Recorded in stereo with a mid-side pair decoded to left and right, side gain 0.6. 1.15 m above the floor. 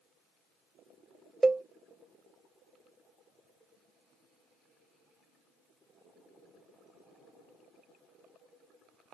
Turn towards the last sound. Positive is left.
turn(degrees=-15)